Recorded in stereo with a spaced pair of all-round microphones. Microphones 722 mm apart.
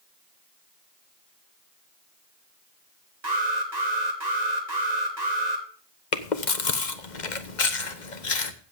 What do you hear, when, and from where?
3.2 s an alarm: 65° right (ahead or behind), 2.5 m
6.1 s chewing: 80° left, 1.3 m